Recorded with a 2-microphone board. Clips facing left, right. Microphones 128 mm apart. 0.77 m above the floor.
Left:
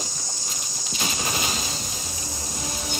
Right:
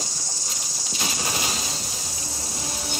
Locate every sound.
0.0 s an insect: 75° right (ahead or behind), 1.0 m